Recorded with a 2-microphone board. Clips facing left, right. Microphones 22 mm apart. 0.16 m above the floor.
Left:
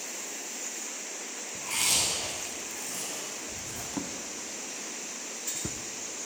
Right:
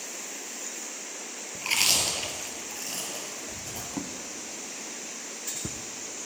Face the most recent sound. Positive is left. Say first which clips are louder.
# even
turn(degrees=5)  # may be behind; listen again after turning